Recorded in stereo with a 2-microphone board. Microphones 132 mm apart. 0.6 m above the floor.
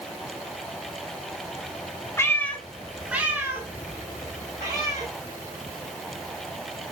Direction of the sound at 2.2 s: 20° left (ahead or behind).